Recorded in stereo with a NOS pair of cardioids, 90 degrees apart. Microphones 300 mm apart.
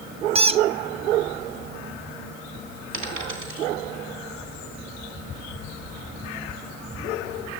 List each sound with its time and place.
0.3 s a squeak: 20° right, 0.6 m
2.9 s a dropped coin: 50° right, 3 m